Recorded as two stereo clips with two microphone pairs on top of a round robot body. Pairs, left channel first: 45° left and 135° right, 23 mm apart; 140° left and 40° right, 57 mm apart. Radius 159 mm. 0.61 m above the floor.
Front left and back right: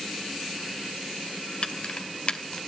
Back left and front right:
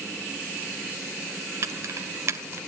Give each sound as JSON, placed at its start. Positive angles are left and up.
{"t": 1.6, "sound": "keys jangling", "azimuth_deg": 0, "distance_m": 1.9}